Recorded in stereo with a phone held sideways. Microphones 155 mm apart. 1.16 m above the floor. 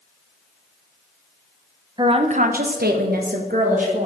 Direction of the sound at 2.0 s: 30° right (ahead or behind).